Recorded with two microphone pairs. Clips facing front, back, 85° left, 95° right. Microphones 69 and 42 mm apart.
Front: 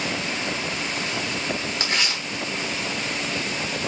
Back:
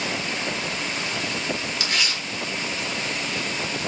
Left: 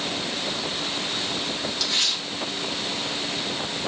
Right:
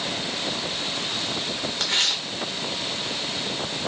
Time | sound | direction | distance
1.8 | tearing paper | 60° right | 1.3 m